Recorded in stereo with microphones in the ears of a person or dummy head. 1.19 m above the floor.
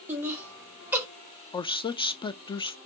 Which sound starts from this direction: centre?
Laughter, at 0.1 s.